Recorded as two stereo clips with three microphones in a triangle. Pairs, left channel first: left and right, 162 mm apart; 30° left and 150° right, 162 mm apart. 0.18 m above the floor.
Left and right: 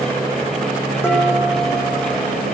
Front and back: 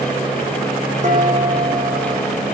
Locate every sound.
1.0 s dishes clattering: 165° left, 5 m